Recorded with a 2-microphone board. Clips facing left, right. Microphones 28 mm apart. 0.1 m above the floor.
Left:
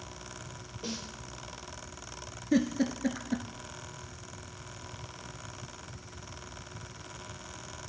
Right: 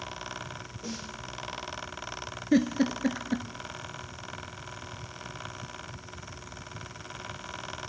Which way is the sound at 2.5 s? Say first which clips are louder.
Right 3 dB; 20° right (ahead or behind).